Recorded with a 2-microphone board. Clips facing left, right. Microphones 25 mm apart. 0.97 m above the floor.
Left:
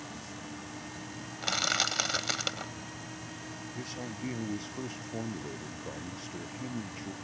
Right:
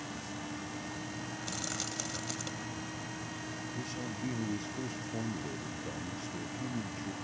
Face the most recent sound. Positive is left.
turn(degrees=20)  # may be behind; listen again after turning